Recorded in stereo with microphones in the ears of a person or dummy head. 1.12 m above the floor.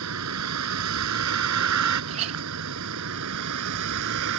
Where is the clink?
30° right (ahead or behind).